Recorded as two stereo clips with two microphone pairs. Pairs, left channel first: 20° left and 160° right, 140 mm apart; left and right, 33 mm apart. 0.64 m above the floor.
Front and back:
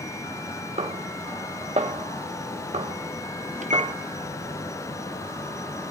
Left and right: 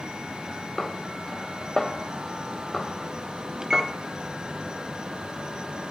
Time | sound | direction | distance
0.8 | a snare drum | 165° left | 0.6 m
3.6 | a microwave | 160° right | 0.5 m